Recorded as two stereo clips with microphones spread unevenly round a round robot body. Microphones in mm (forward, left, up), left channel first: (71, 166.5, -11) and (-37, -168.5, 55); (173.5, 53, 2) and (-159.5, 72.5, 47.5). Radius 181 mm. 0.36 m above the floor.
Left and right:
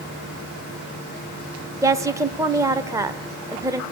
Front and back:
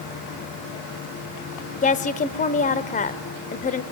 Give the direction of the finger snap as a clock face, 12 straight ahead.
No finger snap in this recording.